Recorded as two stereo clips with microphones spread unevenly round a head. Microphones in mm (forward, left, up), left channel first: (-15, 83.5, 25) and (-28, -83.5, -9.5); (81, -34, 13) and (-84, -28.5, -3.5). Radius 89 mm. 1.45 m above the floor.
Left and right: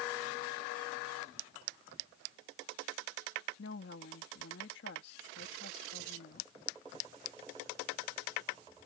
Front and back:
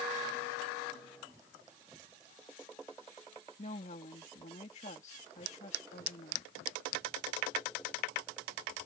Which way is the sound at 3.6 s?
55° left.